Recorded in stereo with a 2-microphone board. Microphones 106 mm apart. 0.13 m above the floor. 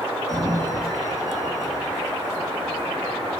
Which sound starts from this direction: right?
A sliding door, at 0.3 s.